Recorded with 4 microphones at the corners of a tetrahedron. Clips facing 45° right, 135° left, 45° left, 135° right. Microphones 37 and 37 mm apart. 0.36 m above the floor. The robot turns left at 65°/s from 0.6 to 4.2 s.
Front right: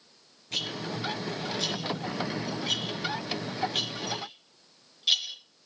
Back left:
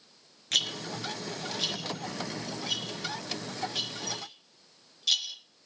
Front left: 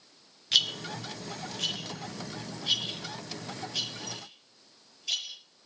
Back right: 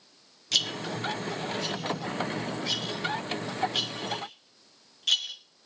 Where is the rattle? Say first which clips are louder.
Back left 3 dB, front left 1 dB; 120° left, 4 m; by 5.3 s 115° right, 4 m.